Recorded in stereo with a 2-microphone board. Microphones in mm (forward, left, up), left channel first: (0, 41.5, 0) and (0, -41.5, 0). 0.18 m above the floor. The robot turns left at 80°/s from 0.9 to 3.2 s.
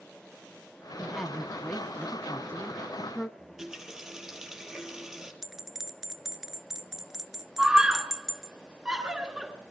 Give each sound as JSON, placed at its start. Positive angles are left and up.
{"t": 1.0, "sound": "a woman speaking", "side_deg": -10, "distance_m": 1.1}
{"t": 3.4, "sound": "a running tap", "side_deg": -5, "distance_m": 3.5}
{"t": 5.4, "sound": "a bell", "side_deg": -5, "distance_m": 0.8}
{"t": 7.6, "sound": "a scream", "side_deg": -10, "distance_m": 2.5}